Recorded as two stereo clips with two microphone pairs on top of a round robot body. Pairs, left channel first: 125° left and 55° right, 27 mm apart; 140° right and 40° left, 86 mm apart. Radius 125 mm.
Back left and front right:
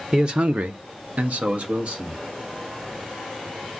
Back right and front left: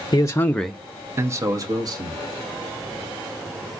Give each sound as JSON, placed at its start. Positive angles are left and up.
{"t": 0.1, "sound": "a man speaking", "azimuth_deg": -120, "distance_m": 0.6}